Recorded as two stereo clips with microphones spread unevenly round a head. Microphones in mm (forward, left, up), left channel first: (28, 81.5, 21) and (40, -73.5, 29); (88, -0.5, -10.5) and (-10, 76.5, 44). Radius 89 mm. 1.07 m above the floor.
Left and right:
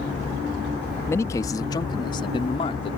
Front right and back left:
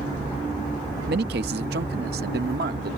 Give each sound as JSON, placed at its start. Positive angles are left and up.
{"t": 1.1, "sound": "a man speaking", "azimuth_deg": 170}